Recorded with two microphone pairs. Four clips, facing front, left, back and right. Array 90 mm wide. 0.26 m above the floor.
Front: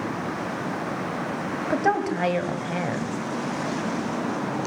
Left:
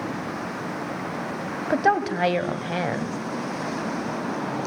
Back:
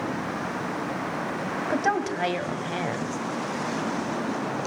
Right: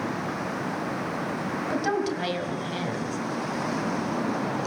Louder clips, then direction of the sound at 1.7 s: Left 7 dB, front 3 dB; 80° left.